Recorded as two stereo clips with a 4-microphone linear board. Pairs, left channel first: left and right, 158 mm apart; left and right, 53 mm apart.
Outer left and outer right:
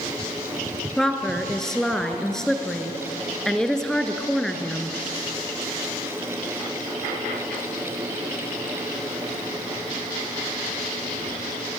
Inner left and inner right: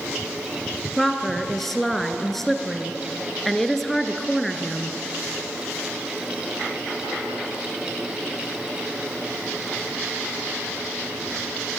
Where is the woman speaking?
5° left (ahead or behind), 1.8 m.